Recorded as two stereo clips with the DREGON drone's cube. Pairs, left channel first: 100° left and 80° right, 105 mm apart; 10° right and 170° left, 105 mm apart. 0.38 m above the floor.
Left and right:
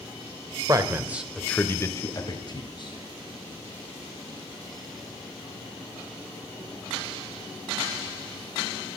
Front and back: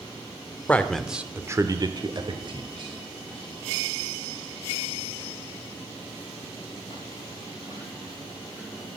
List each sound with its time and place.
0.7 s a man speaking: 75° right, 1.4 m; by 3.0 s 135° left, 3 m